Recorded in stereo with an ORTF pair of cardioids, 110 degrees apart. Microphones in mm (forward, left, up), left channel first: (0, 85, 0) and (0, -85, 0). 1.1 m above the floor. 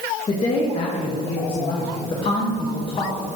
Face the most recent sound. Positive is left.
turn(degrees=35)